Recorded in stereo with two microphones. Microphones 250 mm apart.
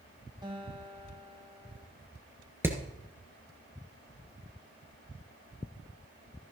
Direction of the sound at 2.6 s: 10° right (ahead or behind).